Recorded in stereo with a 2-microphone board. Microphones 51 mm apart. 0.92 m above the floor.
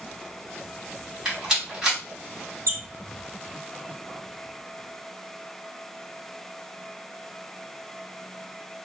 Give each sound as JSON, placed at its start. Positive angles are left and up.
{"t": 1.2, "sound": "a rattle", "side_deg": -15, "distance_m": 1.7}
{"t": 2.7, "sound": "a squeak", "side_deg": -65, "distance_m": 1.0}